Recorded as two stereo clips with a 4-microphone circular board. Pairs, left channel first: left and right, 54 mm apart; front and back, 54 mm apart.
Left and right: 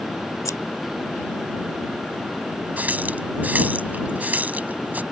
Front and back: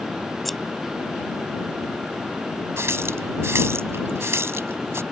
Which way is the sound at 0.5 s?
90° left.